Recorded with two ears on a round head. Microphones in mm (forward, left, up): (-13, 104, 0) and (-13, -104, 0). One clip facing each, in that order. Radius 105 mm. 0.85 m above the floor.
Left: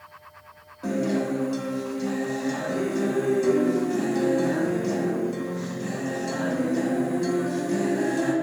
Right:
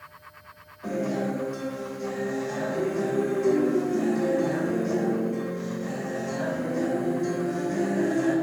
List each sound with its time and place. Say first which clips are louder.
0.8 s a guitar: left 3 dB; 45° left (ahead or behind), 0.9 m